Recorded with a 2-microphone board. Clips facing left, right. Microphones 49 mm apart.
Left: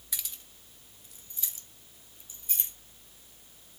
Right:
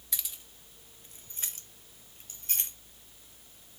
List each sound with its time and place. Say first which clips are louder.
0.1 s keys jangling: even; centre (ahead or behind), 0.7 m; by 2.7 s 65° right (ahead or behind), 1.4 m